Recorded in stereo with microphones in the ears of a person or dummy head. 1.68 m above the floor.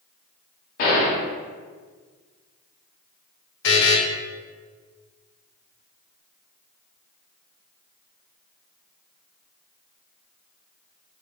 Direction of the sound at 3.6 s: 65° left (ahead or behind).